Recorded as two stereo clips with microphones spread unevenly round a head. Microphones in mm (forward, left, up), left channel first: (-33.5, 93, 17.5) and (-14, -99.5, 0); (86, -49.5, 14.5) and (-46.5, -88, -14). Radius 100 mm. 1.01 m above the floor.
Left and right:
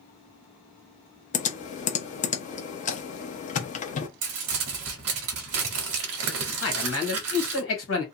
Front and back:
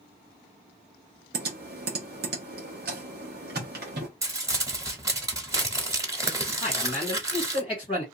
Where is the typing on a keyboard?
150° left, 0.6 m.